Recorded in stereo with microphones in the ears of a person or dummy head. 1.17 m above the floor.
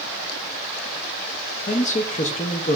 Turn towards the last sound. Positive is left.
turn(degrees=30)  # may be behind; listen again after turning